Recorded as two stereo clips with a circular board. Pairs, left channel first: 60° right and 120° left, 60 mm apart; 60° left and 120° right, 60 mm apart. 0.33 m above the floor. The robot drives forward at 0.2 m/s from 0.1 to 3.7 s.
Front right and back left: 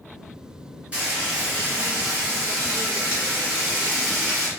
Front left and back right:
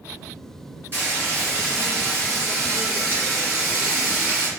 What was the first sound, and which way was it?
Frying, 170° right.